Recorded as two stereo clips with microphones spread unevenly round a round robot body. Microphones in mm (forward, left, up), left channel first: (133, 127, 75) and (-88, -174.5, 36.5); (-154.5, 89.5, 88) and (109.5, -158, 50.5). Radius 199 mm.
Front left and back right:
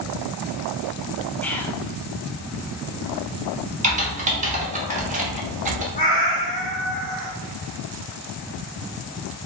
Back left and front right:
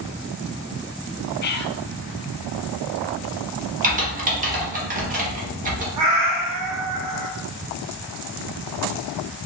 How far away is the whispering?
About 0.6 m.